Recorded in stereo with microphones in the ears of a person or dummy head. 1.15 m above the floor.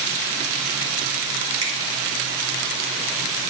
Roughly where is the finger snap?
Right.